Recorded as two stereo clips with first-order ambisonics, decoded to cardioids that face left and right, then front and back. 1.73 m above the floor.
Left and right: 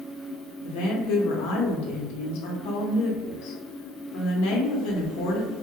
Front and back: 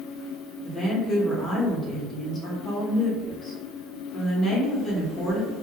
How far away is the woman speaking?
About 0.8 m.